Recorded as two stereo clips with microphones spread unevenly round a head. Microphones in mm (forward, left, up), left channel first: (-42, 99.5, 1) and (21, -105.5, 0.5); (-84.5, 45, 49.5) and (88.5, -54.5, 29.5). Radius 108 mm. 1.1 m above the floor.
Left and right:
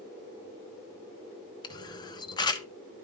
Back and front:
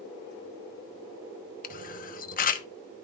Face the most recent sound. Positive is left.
turn(degrees=165)